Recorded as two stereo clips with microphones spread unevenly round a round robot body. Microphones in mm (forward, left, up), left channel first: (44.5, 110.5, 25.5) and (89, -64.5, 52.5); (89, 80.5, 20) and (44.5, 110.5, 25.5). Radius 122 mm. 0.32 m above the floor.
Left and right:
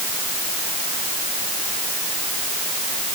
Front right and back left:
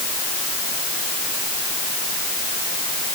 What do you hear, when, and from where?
Only background noise.